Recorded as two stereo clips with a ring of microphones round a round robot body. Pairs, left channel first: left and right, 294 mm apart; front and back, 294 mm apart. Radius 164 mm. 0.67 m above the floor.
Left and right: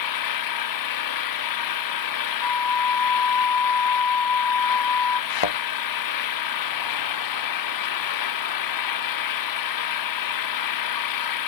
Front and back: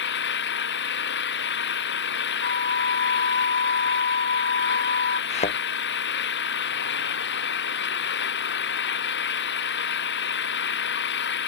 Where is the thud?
70° left.